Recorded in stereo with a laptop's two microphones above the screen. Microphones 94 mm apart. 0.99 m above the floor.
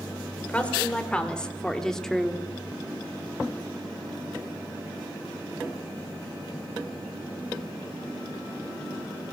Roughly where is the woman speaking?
Centre.